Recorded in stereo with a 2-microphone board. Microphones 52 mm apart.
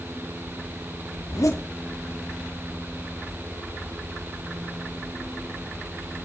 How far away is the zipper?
About 4 m.